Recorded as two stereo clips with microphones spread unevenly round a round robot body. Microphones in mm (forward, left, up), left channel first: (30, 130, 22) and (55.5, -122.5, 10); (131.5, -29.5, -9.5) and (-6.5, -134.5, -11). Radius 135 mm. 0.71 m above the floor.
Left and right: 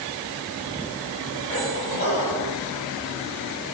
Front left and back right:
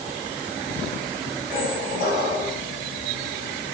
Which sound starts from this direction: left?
A squeak, at 1.5 s.